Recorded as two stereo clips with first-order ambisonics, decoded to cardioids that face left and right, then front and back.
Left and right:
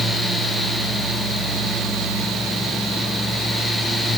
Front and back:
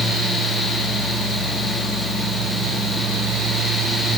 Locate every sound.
Only background noise.